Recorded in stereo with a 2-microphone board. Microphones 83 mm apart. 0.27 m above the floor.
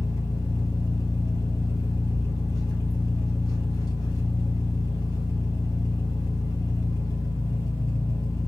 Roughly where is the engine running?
Left.